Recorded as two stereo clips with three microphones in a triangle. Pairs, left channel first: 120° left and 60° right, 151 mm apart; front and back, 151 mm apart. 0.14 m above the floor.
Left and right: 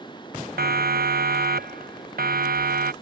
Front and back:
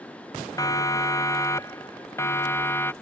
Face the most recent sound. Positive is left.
turn(degrees=-75)